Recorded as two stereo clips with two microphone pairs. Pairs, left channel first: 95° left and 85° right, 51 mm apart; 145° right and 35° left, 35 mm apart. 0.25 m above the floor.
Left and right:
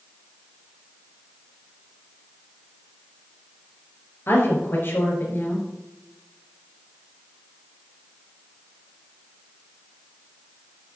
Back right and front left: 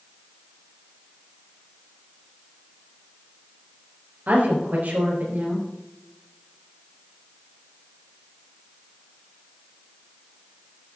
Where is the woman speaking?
60° left, 4 m.